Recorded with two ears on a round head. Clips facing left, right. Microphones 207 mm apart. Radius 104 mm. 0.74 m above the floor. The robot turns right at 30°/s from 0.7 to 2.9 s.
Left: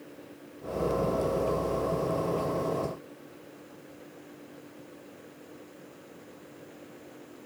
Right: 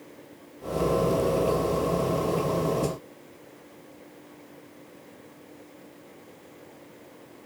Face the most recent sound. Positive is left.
No sound to turn to.